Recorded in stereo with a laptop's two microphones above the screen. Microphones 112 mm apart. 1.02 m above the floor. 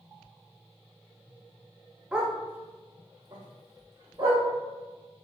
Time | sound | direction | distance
2.1 | a dog barking | 10° right (ahead or behind) | 0.8 m